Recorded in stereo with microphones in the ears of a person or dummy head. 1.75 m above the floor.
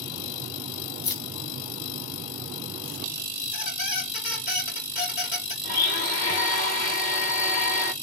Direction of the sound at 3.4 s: 25° left (ahead or behind).